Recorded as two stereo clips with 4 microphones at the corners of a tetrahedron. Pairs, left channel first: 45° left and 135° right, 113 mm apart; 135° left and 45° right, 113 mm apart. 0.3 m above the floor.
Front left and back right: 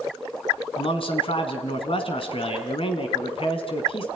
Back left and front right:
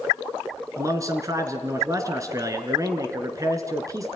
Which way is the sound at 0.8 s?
15° left.